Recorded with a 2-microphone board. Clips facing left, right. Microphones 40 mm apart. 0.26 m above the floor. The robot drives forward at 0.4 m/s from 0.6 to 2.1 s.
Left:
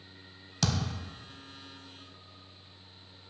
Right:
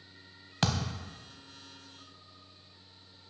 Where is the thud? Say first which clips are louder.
Even; 30° right (ahead or behind), 0.6 m; by 1.0 s 25° right (ahead or behind), 0.7 m.